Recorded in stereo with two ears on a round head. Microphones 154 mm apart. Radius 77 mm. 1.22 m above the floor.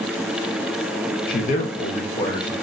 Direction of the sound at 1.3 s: 55° left (ahead or behind).